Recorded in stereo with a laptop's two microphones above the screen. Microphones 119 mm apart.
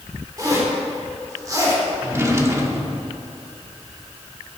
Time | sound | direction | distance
0.4 | a zipper | 30° right (ahead or behind) | 4 m
2.0 | a drawer | 25° right (ahead or behind) | 1.3 m